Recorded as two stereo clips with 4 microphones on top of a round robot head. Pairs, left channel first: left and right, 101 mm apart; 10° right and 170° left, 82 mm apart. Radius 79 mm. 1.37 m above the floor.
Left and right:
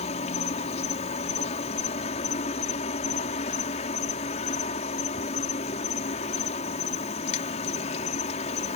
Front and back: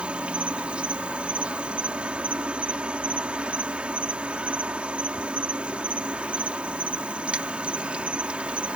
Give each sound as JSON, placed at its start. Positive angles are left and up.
{"t": 0.0, "sound": "an insect", "azimuth_deg": 95}